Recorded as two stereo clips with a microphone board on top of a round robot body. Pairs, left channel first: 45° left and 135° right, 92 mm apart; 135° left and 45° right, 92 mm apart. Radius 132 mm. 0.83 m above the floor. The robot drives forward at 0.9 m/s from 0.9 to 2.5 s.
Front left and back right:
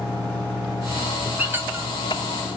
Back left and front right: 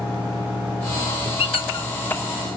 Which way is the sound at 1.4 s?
155° left.